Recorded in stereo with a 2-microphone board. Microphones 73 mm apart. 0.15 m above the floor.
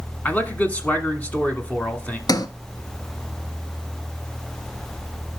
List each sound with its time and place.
0.2 s a man speaking: 20° left (ahead or behind), 1.2 m
2.3 s a sliding door: 65° left (ahead or behind), 0.7 m